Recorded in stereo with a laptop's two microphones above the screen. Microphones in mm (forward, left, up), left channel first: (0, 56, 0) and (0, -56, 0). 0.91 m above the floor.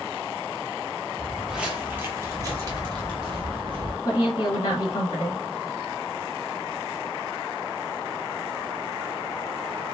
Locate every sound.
1.2 s footsteps: 5° left (ahead or behind), 0.9 m; by 4.0 s 50° right (ahead or behind), 1.8 m
4.0 s a woman speaking: 55° left (ahead or behind), 1.2 m